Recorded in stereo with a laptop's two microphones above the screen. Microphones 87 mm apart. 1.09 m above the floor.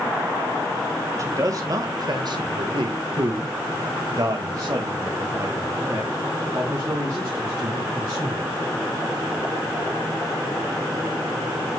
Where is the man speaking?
35° right (ahead or behind), 1.4 m; by 8.5 s 30° right (ahead or behind), 4 m.